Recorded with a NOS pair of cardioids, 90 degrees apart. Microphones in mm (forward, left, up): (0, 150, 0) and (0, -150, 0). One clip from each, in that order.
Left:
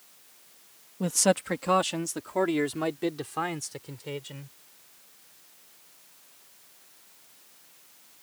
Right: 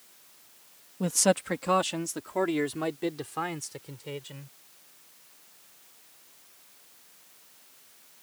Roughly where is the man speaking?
Ahead.